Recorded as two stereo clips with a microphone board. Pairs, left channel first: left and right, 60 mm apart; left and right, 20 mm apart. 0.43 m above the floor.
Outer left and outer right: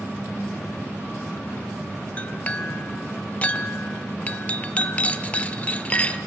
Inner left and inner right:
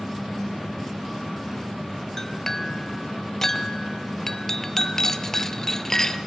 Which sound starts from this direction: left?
A clink, at 2.2 s.